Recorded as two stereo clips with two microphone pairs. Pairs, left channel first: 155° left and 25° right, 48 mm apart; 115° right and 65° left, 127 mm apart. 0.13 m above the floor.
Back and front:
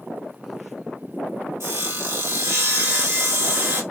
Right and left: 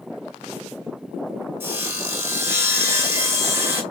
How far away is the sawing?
About 1.1 m.